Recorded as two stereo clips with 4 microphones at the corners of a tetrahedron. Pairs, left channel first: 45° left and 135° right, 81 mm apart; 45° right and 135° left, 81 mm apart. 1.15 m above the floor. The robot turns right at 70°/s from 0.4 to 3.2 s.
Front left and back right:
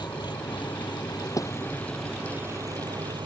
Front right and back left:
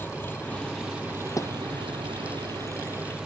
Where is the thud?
Straight ahead; by 1.5 s 10° left.